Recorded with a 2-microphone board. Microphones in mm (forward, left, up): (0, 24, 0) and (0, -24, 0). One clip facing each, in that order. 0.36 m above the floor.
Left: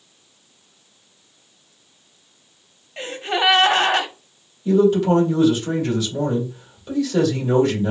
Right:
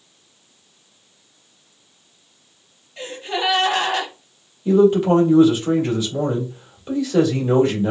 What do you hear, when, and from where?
3.0 s a gasp: 55° left (ahead or behind), 0.6 m
4.7 s a man speaking: 20° right (ahead or behind), 1.5 m